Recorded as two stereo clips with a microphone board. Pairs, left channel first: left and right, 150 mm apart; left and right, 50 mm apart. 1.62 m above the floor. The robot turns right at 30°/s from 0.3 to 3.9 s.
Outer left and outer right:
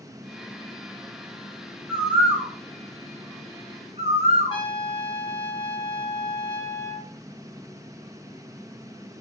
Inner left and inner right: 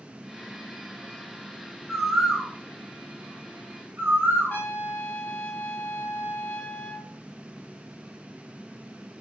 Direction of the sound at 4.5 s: 30° left (ahead or behind).